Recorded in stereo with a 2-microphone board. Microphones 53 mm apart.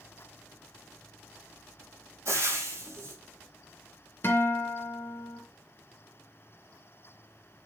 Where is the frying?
60° right (ahead or behind), 5.5 m.